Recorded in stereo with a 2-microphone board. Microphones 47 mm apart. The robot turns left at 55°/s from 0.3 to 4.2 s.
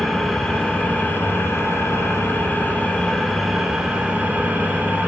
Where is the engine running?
175° left, 0.8 m; by 5.1 s 40° right, 0.8 m.